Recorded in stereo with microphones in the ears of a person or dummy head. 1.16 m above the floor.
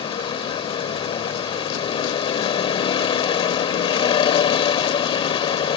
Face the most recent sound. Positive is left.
turn(degrees=30)  # may be behind; listen again after turning